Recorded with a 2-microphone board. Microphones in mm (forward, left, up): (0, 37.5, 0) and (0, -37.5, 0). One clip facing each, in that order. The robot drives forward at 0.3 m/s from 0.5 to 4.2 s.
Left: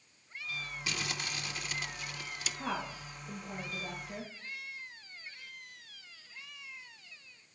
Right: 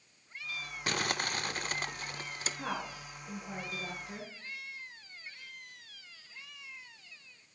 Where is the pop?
No pop in this recording.